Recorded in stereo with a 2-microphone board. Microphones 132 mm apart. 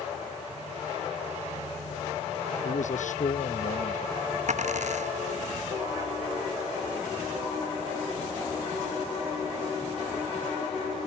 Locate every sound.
2.6 s a man speaking: 65° left (ahead or behind); by 4.4 s 75° left (ahead or behind)
4.5 s a dropped coin: 60° right (ahead or behind)